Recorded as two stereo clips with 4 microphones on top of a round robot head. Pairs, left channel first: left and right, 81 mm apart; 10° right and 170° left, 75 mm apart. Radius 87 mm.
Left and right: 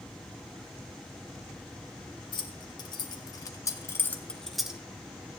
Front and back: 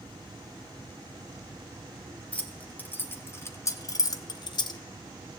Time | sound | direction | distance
2.3 | keys jangling | 65° left | 1.6 m